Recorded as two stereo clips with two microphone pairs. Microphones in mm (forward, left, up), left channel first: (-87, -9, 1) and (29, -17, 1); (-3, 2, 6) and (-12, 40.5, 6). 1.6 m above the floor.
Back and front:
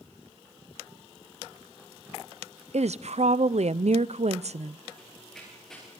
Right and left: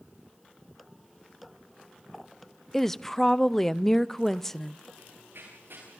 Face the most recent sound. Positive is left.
turn(degrees=90)